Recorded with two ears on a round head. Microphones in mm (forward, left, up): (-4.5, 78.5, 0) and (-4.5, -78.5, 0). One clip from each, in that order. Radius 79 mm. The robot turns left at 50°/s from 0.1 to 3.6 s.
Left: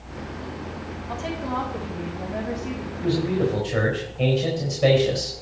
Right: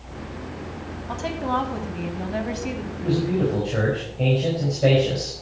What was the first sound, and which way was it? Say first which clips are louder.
A woman speaking: right 4 dB; 20° right.